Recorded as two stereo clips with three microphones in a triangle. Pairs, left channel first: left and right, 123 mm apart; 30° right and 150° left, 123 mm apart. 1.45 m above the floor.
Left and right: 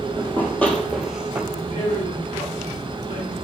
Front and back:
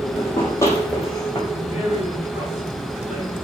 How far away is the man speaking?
About 4.5 m.